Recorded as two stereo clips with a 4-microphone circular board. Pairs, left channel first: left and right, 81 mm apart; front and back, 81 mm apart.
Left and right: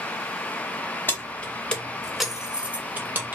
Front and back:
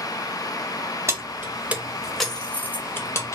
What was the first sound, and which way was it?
Keys jangling, 145° left.